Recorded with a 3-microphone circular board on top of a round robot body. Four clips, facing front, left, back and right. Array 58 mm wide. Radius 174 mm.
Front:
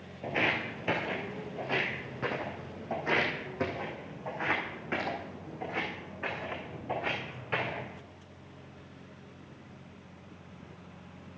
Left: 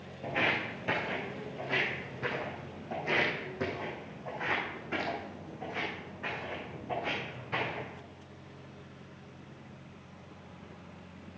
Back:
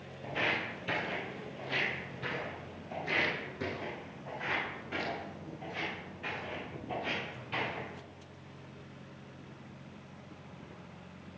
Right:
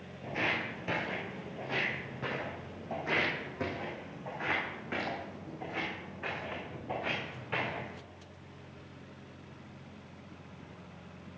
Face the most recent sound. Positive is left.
turn(degrees=-10)